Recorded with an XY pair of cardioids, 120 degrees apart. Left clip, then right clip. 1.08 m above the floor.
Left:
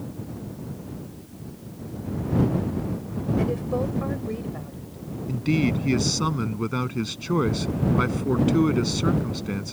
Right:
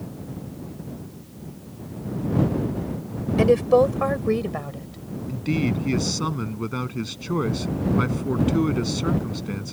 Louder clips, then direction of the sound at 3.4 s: Right 12 dB; 65° right.